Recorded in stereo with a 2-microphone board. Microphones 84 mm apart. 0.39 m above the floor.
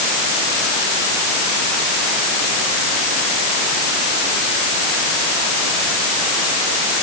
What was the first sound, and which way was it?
Only background noise.